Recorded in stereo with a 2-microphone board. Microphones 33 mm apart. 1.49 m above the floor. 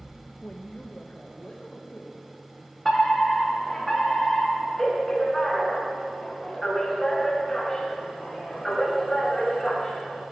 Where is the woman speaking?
30° left (ahead or behind), 0.9 m; by 2.8 s 20° left (ahead or behind), 3.5 m.